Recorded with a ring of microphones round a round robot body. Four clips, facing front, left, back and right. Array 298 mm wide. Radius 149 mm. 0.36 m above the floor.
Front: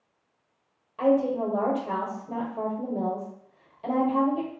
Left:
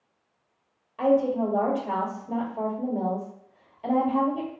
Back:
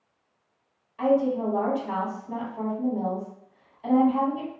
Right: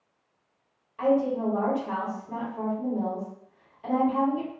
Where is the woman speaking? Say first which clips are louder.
Left 2 dB, even; 40° left, 1.1 m.